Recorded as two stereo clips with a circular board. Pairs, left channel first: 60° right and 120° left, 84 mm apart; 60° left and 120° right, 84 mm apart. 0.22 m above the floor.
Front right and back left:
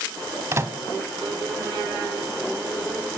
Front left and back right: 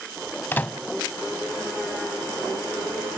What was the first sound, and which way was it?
A microwave, 110° left.